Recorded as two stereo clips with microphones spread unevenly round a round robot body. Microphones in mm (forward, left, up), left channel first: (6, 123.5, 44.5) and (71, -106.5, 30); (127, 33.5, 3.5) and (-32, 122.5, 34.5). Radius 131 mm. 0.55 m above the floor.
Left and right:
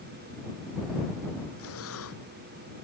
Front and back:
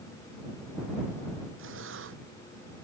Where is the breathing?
145° left.